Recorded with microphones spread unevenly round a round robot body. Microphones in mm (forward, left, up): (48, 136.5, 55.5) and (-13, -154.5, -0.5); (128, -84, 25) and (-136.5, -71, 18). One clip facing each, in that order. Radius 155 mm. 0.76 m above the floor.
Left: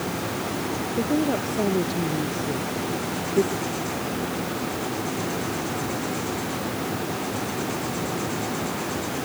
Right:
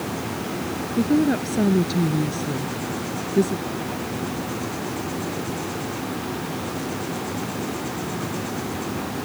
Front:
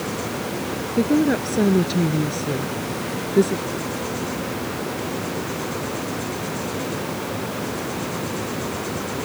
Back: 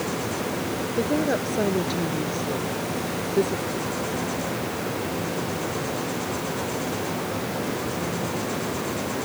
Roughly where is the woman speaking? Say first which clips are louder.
Right 5 dB, front 7 dB; ahead right.